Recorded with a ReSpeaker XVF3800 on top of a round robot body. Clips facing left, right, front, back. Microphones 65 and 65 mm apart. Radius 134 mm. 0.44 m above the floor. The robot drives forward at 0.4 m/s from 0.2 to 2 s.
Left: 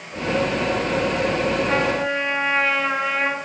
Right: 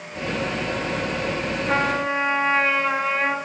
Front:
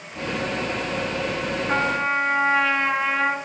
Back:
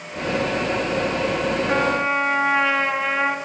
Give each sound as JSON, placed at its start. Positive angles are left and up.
{"t": 1.7, "sound": "a trumpet", "azimuth_deg": -105, "distance_m": 1.6}